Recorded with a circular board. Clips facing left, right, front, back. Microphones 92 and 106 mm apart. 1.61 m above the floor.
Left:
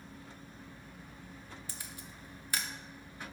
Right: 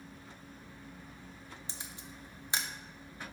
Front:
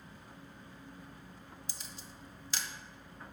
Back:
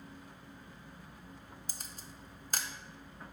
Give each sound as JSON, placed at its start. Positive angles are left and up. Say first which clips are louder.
{"t": 1.7, "sound": "a camera shutter", "louder": "right 1 dB, even", "azimuth_deg": -150, "distance_m": 0.5}